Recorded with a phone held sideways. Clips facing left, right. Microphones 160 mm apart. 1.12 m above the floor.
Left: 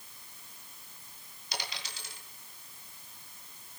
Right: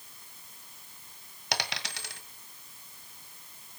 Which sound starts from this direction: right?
A dropped coin, at 1.5 s.